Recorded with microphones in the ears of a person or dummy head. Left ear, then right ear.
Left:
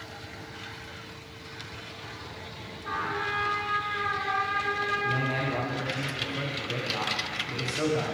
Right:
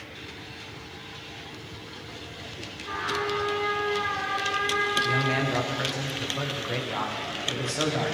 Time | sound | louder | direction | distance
2.8 | a trumpet | right 1 dB | 50° left (ahead or behind) | 3 m
5.0 | a man speaking | right 3 dB | 20° right (ahead or behind) | 0.9 m